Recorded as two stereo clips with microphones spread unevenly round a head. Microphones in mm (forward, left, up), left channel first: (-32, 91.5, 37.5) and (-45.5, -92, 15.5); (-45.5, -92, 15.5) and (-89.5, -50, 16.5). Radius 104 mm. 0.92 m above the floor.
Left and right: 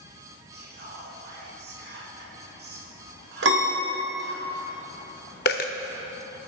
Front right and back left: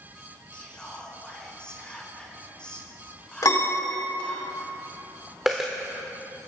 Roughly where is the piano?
Right.